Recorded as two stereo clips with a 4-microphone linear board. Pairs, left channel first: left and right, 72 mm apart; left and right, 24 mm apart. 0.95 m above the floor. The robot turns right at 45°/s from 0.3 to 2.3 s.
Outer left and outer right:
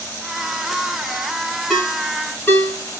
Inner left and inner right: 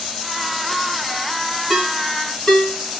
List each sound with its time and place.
1.7 s a ringtone: 5° left (ahead or behind), 4.5 m; by 3.0 s 30° left (ahead or behind), 4.5 m